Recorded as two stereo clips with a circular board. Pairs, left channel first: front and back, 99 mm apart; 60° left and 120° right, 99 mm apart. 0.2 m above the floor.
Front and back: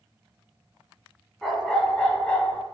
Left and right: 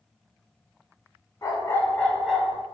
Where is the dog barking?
85° left, 0.7 m; by 2.6 s 65° right, 0.6 m.